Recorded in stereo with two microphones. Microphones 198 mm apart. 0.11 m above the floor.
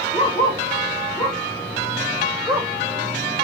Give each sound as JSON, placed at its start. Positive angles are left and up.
{"t": 0.1, "sound": "a dog barking", "side_deg": 30, "distance_m": 4.5}